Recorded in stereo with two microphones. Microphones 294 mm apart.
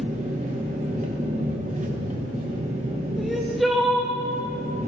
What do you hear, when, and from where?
0.0 s an engine running: 25° right (ahead or behind), 1.5 m
3.2 s crying: centre (ahead or behind), 1.6 m